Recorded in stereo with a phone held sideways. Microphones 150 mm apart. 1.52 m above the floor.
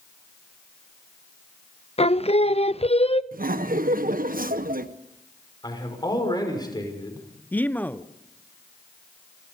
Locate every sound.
2.0 s singing: 40° left (ahead or behind), 0.5 m
3.3 s laughter: 70° right (ahead or behind), 1.1 m
5.6 s a man speaking: 30° left (ahead or behind), 5.5 m
7.5 s a man speaking: 10° left (ahead or behind), 0.7 m